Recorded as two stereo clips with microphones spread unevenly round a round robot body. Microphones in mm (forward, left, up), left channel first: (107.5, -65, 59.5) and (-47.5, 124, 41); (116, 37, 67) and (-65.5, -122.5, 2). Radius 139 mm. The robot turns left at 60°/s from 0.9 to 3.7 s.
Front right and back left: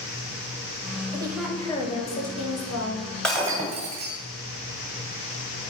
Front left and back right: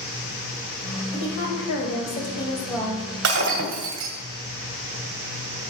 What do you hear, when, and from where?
1.1 s a woman speaking: 60° left, 3 m; by 3.1 s 55° right, 3 m
3.2 s breaking glass: 140° right, 1.8 m; by 4.2 s 165° right, 1.8 m